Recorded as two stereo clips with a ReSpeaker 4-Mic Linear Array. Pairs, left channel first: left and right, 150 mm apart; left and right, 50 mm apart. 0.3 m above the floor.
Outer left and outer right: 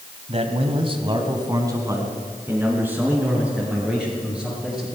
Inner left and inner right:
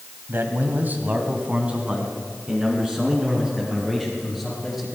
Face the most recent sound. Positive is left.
turn(degrees=-5)  # may be behind; listen again after turning